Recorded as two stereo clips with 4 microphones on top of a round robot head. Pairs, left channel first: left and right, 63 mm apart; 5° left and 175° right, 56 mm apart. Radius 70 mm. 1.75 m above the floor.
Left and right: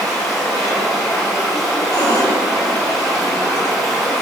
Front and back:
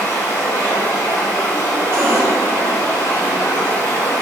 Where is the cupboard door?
135° left, 2 m.